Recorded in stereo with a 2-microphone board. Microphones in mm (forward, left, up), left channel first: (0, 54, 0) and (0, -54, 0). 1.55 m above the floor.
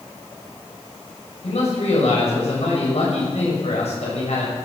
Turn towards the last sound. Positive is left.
turn(degrees=85)